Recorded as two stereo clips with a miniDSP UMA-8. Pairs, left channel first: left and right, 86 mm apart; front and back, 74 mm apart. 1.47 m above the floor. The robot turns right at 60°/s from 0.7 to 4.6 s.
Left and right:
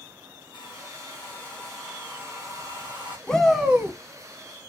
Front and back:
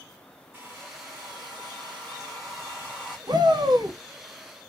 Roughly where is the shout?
Behind.